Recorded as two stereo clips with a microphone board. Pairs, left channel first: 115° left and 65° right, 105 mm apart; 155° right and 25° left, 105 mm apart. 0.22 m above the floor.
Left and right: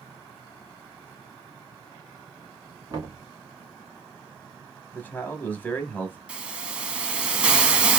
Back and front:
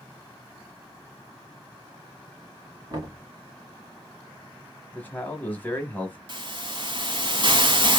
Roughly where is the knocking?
Ahead.